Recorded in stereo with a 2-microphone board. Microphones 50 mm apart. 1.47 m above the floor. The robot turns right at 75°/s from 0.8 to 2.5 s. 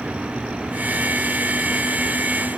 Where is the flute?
No flute in this recording.